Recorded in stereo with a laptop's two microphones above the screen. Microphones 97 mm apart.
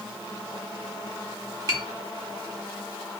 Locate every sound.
1.7 s tapping: 40° right (ahead or behind), 1.0 m